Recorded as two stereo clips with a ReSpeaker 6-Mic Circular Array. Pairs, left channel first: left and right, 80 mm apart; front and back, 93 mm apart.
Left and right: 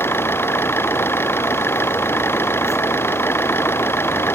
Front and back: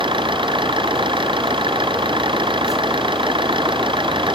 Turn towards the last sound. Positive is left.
turn(degrees=155)